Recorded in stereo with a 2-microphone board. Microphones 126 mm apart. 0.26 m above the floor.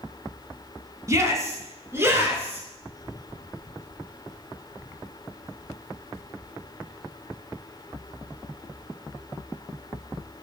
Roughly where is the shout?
Right.